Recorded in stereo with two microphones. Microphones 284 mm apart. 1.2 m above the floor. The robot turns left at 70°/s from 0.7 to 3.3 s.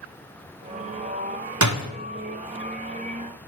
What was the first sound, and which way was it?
A door slam, 80° right.